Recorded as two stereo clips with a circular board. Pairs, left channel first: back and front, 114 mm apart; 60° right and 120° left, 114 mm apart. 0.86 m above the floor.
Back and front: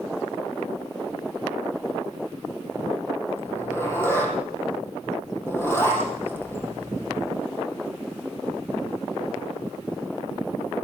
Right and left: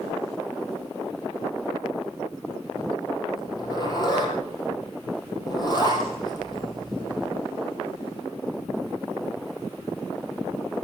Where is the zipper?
110° right, 6.5 m.